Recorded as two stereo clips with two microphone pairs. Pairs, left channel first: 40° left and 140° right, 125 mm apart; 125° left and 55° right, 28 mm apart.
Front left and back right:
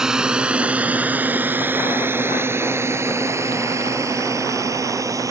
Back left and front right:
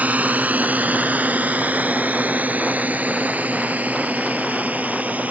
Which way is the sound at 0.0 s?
55° right.